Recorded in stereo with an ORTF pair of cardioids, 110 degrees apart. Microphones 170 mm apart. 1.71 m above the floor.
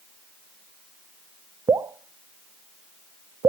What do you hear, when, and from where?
1.7 s dripping: 20° right, 0.6 m